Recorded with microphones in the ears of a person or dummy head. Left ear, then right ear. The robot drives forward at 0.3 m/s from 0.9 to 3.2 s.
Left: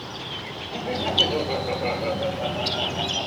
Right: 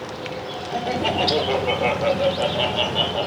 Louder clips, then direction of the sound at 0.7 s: Right 1 dB; 55° right (ahead or behind).